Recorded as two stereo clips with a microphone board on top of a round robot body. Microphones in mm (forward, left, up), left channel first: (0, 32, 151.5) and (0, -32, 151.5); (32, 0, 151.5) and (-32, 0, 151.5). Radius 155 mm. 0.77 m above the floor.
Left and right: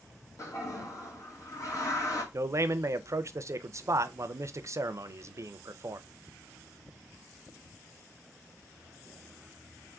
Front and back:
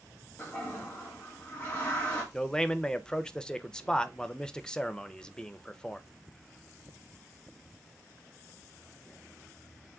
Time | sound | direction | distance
0.4 | a toilet flushing | 65° left | 1.8 m
2.3 | a man speaking | 75° right | 0.5 m